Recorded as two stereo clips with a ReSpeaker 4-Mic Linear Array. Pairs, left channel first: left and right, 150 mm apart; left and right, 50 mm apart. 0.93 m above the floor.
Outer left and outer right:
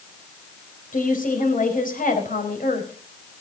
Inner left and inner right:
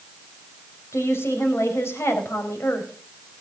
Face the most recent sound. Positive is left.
turn(degrees=60)  # may be behind; listen again after turning